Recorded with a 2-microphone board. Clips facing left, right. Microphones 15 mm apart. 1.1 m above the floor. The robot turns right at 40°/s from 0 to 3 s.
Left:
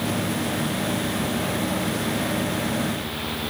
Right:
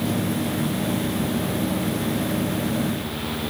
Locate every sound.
Only background noise.